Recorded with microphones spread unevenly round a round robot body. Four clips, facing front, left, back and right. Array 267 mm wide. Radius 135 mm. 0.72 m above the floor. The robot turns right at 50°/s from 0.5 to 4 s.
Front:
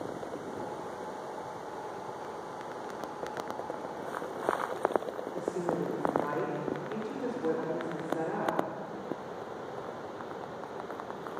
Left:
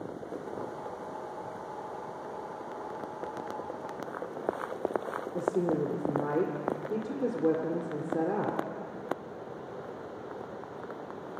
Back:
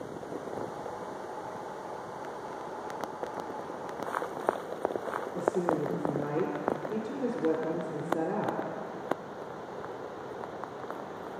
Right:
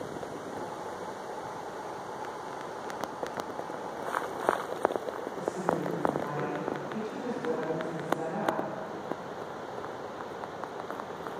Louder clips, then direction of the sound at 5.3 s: Left 3 dB, back 4 dB; 110° left.